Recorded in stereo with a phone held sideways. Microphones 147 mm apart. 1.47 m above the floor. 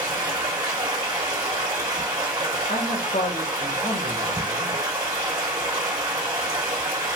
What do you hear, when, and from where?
0.0 s running water: 25° right (ahead or behind), 1.6 m
2.7 s a man speaking: 80° left, 1.4 m